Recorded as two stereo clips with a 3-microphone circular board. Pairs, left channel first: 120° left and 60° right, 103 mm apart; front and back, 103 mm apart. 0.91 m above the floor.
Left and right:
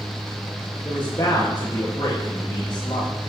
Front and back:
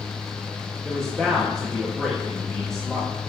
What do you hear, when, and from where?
0.8 s a man speaking: 85° left, 1.5 m